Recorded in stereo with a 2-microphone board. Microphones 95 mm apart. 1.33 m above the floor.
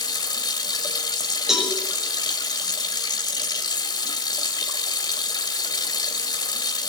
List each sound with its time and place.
0.0 s running water: 45° left (ahead or behind), 2.5 m
1.5 s a cowbell: 5° right (ahead or behind), 7 m